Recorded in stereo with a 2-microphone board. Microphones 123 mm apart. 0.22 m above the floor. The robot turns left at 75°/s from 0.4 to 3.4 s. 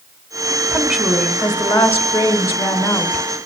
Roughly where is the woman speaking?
Centre.